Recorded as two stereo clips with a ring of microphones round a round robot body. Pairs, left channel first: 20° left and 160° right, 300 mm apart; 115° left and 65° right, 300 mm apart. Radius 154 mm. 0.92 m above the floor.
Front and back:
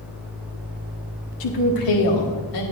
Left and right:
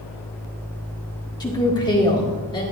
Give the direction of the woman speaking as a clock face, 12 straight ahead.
11 o'clock.